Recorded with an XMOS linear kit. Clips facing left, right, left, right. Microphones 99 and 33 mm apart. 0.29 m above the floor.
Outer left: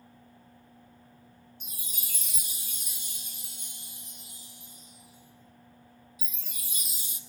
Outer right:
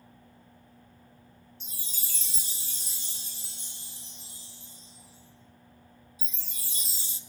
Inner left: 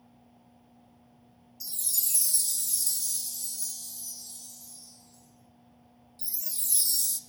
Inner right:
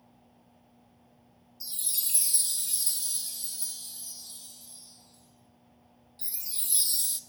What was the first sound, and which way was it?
A chime, 35° right (ahead or behind).